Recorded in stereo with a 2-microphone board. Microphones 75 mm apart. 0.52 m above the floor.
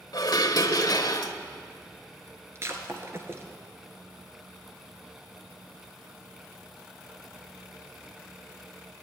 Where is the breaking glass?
35° right (ahead or behind), 1.8 m.